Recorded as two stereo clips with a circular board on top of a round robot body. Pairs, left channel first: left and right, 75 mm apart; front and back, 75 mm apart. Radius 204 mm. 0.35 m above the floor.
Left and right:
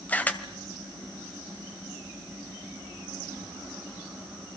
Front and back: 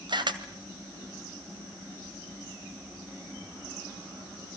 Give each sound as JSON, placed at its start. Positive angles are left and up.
{"t": 0.1, "sound": "a camera shutter", "azimuth_deg": 160, "distance_m": 2.0}